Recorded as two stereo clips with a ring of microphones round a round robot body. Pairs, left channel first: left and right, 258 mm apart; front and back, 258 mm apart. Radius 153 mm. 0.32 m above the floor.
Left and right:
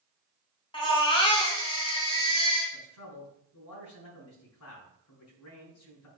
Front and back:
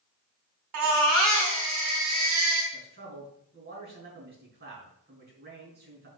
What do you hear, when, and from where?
0.7 s a baby crying: 165° left, 3 m
2.7 s a man speaking: 125° left, 4.5 m